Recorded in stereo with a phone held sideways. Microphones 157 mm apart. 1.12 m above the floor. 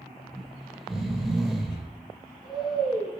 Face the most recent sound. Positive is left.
turn(degrees=0)  # may be behind; listen again after turning